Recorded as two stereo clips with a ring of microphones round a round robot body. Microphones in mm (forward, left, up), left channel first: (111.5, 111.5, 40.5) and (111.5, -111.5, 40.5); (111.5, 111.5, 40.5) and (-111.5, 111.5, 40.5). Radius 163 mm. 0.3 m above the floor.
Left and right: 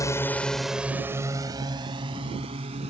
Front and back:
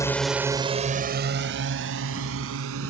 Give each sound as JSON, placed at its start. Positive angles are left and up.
{"t": 0.0, "sound": "a drone", "azimuth_deg": 45}